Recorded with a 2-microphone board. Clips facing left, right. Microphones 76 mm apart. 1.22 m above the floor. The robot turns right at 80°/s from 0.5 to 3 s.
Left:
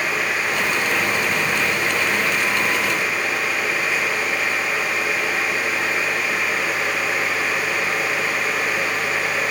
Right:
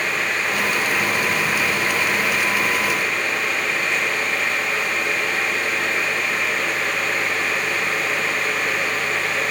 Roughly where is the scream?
I don't hear a scream.